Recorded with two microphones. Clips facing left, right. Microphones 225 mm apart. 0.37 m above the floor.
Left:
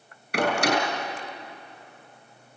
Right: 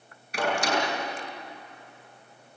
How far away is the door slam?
About 5 m.